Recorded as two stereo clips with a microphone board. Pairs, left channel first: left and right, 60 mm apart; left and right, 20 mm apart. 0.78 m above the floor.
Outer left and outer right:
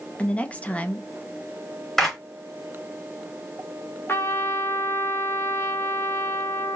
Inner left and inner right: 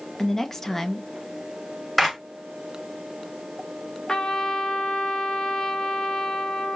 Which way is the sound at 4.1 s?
40° left (ahead or behind).